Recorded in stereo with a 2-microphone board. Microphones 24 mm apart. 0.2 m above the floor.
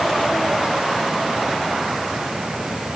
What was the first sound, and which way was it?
Only background noise.